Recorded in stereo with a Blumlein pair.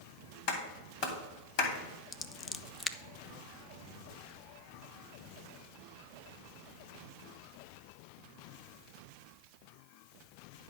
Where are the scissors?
15° left, 0.6 m.